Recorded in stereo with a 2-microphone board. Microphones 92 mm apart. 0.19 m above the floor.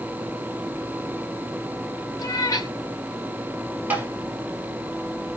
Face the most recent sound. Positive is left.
turn(degrees=-20)  # may be behind; listen again after turning